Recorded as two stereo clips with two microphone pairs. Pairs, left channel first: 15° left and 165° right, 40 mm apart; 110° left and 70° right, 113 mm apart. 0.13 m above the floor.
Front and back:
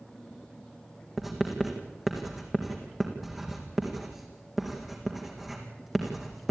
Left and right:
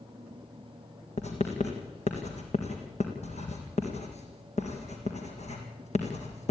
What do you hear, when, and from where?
1.2 s writing: 110° left, 4 m